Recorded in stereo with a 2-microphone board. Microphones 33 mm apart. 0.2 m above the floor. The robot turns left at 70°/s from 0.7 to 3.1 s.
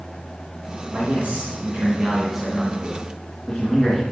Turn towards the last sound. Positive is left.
turn(degrees=150)